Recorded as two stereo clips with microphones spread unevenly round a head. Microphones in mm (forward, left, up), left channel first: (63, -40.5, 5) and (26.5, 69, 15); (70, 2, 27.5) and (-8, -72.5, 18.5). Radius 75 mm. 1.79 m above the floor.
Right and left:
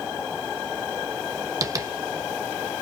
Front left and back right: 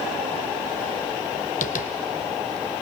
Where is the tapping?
50° left, 1.5 m.